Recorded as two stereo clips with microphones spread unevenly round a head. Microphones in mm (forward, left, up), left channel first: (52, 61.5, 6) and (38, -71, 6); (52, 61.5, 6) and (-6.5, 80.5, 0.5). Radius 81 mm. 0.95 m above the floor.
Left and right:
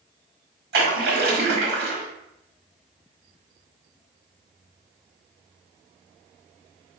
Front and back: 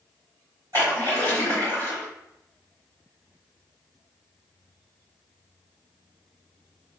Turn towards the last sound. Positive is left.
turn(degrees=-130)